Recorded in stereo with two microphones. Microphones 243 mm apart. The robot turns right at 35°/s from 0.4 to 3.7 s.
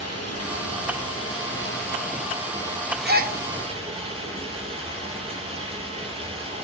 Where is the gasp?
40° right (ahead or behind), 0.9 m; by 3.4 s 35° right (ahead or behind), 0.9 m.